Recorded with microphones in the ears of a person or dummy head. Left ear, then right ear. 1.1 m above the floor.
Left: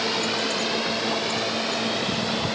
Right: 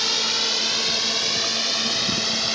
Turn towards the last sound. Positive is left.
turn(degrees=-55)  # may be behind; listen again after turning